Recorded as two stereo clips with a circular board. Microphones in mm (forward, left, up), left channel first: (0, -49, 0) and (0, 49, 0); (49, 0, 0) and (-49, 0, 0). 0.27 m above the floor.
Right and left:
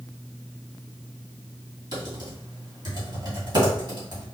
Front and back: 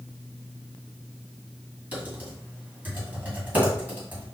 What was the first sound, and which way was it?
Typing on a keyboard, 110° left.